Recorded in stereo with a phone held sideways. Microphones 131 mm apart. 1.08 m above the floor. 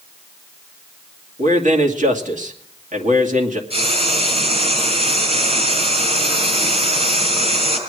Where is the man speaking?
70° right (ahead or behind), 2.5 m.